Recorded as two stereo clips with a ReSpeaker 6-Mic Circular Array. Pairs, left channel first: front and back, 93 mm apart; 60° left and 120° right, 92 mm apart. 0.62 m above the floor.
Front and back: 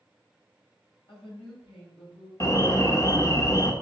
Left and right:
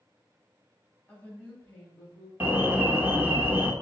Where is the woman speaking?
15° right, 4 m.